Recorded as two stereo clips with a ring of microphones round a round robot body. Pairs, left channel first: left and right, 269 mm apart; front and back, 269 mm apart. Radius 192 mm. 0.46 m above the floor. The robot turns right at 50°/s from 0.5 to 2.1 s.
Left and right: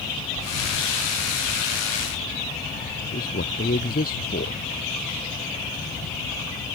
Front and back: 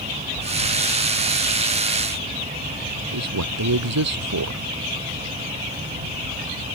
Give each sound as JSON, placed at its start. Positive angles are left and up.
{"t": 3.1, "sound": "a man speaking", "azimuth_deg": 160}